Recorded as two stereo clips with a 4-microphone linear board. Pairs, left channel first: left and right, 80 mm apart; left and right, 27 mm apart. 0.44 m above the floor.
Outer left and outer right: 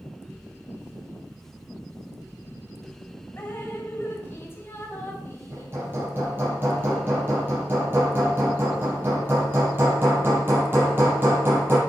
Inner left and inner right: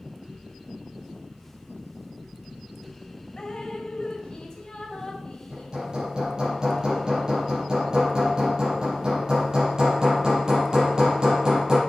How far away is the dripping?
About 2.5 m.